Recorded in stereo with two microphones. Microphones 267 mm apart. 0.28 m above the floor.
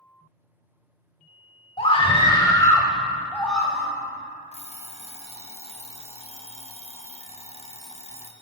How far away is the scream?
About 1.0 m.